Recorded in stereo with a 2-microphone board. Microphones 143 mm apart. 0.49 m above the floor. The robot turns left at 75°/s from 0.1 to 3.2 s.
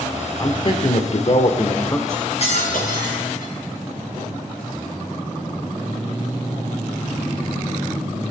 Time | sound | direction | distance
0.4 | a man speaking | 145° left | 1.1 m
2.1 | cutlery clinking | 155° left | 3.5 m